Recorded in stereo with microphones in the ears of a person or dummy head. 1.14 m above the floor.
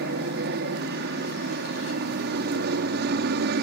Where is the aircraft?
55° right (ahead or behind).